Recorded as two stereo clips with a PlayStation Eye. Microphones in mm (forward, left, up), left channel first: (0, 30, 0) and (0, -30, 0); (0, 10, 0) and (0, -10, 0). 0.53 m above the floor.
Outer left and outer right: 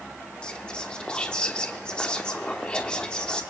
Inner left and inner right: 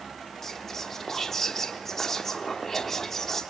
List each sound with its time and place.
0.4 s whispering: 20° left (ahead or behind), 0.9 m